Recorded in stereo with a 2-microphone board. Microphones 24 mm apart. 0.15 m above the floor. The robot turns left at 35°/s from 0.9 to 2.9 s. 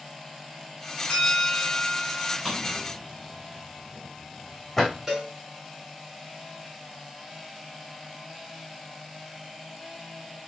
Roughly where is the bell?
Left.